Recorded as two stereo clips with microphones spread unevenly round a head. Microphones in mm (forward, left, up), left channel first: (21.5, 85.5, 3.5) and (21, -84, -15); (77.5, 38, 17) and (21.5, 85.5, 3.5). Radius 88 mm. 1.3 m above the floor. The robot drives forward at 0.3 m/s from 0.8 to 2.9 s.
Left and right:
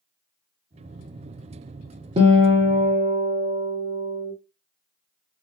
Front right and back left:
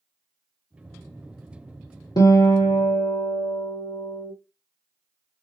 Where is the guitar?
35° right, 1.2 m; by 4.3 s 40° right, 1.0 m.